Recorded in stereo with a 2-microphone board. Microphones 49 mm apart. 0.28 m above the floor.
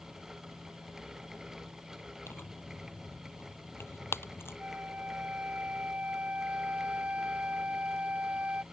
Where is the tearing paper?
55° left (ahead or behind).